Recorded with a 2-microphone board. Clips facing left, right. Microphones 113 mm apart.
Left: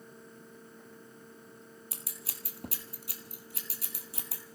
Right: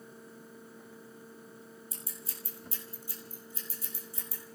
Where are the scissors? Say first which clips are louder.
Right 1 dB; 75° left (ahead or behind), 1.6 m.